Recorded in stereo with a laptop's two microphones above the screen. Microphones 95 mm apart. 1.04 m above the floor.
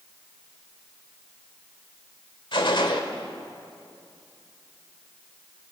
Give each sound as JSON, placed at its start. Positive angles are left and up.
{"t": 2.5, "sound": "a gunshot", "side_deg": 60, "distance_m": 1.7}